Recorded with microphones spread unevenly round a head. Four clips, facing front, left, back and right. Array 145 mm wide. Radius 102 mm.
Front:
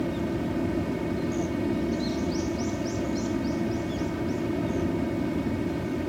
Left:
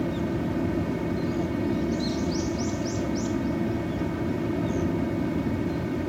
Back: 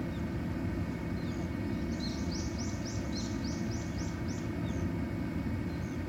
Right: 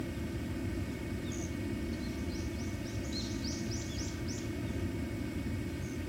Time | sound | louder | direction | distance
0.0 | a fan | left 12 dB, front 9 dB | 45° left | ?